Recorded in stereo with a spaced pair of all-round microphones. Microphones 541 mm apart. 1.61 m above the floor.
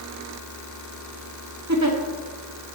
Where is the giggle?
30° right (ahead or behind), 1.9 m.